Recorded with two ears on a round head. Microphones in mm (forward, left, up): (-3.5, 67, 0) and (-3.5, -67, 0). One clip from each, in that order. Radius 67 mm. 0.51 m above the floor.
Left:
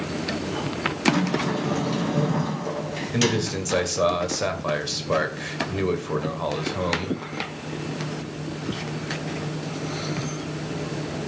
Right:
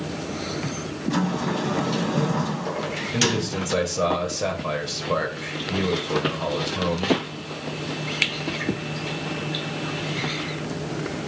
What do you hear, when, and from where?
1.1 s a sliding door: 15° right (ahead or behind), 0.7 m
3.1 s a man speaking: 25° left (ahead or behind), 2 m